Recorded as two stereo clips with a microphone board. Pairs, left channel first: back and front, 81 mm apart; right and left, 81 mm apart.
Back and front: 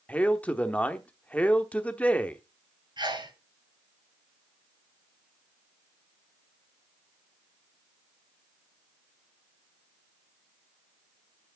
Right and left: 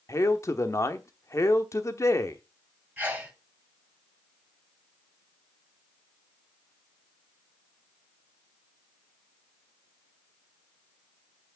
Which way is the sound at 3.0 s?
20° left.